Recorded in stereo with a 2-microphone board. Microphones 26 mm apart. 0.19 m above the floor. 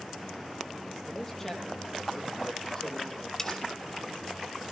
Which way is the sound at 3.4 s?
15° left (ahead or behind).